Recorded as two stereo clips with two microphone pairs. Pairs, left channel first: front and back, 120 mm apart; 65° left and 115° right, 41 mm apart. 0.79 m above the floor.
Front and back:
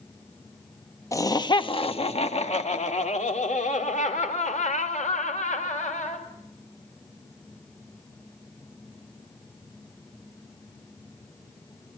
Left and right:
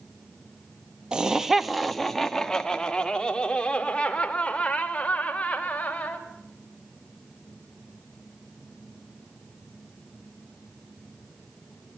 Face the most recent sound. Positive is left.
turn(degrees=10)